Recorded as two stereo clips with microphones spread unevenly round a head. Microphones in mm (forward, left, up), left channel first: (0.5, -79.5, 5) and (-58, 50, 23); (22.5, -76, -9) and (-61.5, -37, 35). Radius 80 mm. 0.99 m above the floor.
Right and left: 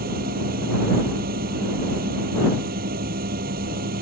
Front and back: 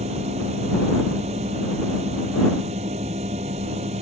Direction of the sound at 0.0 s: 130° left.